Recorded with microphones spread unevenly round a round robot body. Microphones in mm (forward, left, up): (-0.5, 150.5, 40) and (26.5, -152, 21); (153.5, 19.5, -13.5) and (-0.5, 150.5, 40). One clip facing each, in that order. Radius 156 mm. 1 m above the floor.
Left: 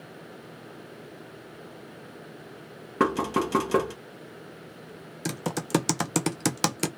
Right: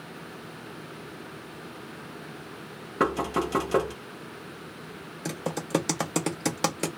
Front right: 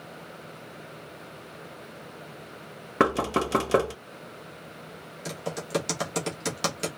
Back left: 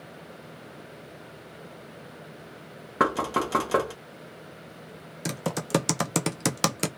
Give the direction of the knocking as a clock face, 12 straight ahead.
11 o'clock.